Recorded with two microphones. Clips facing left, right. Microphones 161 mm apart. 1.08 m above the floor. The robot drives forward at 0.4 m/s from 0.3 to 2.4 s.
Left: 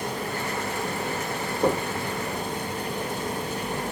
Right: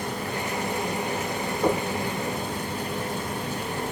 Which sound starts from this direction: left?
Knocking, at 1.6 s.